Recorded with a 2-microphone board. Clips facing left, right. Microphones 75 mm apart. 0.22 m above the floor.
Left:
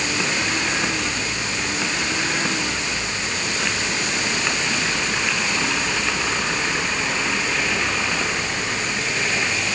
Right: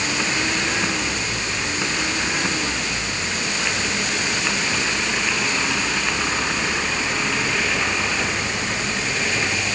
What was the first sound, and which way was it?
Only background noise.